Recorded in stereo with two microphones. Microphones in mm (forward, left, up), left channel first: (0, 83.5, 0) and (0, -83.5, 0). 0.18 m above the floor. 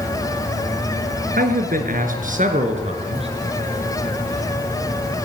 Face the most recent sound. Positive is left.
turn(degrees=-35)  # may be behind; listen again after turning